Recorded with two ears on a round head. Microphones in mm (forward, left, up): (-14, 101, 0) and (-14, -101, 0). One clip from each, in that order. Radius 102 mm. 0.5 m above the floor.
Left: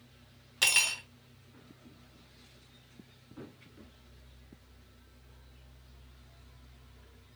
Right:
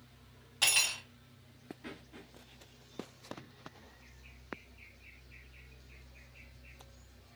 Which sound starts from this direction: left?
Cutlery clinking, at 0.6 s.